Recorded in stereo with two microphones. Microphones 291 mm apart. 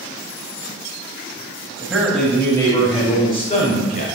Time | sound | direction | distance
1.8 | a man speaking | 5° right (ahead or behind) | 1.0 m